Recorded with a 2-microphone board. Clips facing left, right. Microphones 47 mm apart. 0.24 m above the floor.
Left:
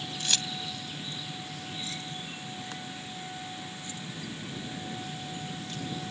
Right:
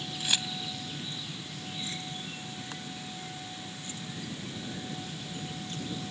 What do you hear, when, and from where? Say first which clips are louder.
0.2 s keys jangling: right 1 dB; 10° right (ahead or behind); by 5.9 s 40° right (ahead or behind)